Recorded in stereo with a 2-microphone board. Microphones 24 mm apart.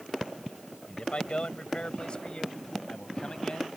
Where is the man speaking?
50° left (ahead or behind); by 3.7 s 35° left (ahead or behind).